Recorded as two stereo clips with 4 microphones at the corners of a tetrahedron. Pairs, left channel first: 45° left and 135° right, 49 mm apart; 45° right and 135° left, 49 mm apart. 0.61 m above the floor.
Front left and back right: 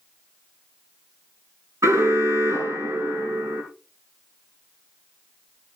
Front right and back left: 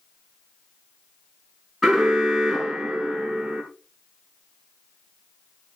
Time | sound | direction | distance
1.8 | an alarm | 135° right | 5.5 m